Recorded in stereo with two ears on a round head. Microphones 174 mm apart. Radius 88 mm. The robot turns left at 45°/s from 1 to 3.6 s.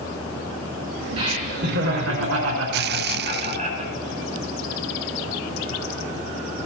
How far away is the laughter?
About 4.5 m.